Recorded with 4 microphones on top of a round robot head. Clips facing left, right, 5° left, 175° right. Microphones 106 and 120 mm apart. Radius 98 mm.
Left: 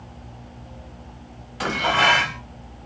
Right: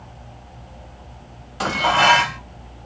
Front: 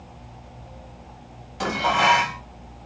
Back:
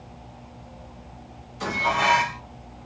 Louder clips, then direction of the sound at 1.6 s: Right 3 dB, front 3 dB; 30° right.